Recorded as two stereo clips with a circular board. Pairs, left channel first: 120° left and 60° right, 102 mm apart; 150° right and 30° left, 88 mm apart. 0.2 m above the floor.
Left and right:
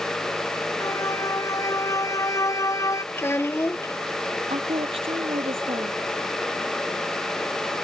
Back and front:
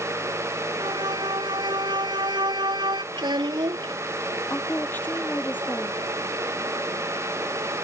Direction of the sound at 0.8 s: 60° left.